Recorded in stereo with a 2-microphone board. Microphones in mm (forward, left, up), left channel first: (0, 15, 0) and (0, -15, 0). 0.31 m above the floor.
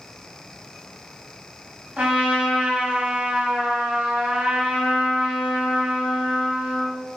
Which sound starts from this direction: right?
A trumpet, at 2.0 s.